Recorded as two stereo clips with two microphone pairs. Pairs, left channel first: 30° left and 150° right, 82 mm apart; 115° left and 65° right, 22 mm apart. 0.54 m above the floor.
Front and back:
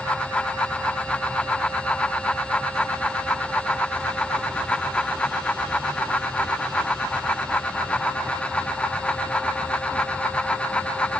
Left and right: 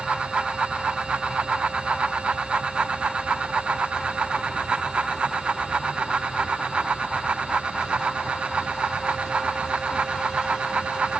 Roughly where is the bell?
I don't hear a bell.